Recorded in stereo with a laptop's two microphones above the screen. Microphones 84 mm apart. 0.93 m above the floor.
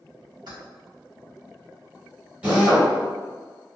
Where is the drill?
15° right (ahead or behind), 1.3 m.